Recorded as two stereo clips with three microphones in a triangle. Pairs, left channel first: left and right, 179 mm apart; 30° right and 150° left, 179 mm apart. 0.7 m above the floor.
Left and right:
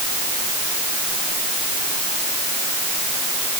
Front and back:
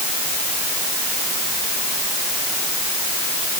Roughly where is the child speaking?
No child speaking in this recording.